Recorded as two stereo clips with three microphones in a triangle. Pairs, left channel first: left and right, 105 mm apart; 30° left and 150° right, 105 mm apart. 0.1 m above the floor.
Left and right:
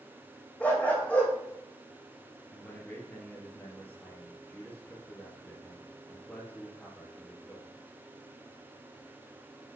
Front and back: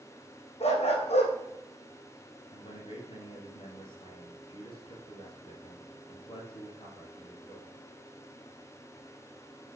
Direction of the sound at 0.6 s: 15° left.